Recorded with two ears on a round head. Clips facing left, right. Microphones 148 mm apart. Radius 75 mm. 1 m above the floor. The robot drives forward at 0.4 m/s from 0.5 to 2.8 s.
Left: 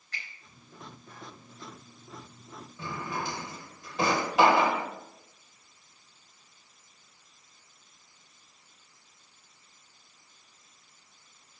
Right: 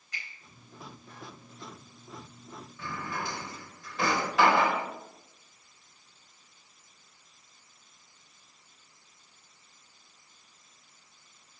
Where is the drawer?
20° left (ahead or behind), 1.1 m.